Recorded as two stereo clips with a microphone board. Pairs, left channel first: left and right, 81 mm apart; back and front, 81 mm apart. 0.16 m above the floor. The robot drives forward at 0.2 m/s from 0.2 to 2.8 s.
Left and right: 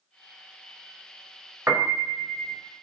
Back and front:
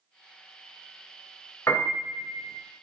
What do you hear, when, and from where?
1.7 s a piano: 135° right, 1.3 m; by 2.6 s 140° right, 1.4 m